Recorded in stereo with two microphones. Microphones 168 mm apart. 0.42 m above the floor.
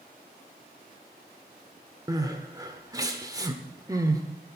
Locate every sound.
2.1 s crying: 20° right (ahead or behind), 1.1 m